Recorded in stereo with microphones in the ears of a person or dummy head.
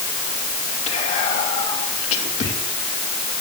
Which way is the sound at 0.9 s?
35° left (ahead or behind).